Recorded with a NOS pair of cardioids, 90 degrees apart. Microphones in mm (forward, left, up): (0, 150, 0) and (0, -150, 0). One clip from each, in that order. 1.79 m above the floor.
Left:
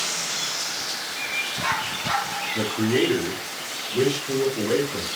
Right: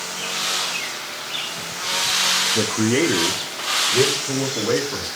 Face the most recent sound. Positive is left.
turn(degrees=-40)